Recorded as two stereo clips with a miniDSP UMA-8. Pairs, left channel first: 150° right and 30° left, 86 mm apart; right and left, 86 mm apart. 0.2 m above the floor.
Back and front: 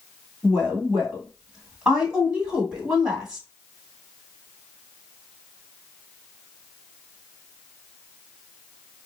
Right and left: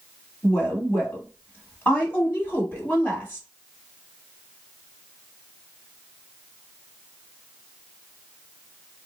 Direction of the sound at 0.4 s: 40° right.